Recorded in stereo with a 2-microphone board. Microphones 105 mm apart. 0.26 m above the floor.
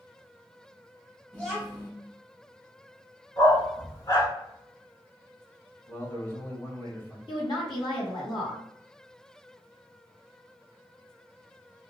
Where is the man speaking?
25° left (ahead or behind), 1.2 m.